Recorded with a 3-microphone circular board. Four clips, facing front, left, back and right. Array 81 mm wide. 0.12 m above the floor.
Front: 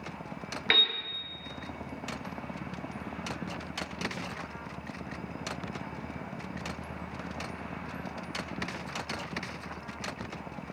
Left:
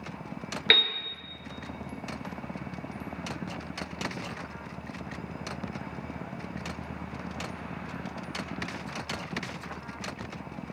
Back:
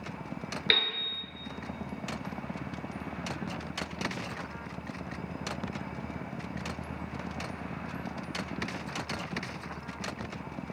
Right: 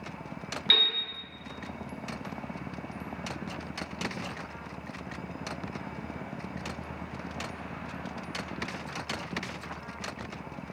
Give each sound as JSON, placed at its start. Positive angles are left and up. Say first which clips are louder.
{"t": 0.7, "sound": "a piano", "louder": "left 5 dB, front 2 dB", "azimuth_deg": 85, "distance_m": 0.8}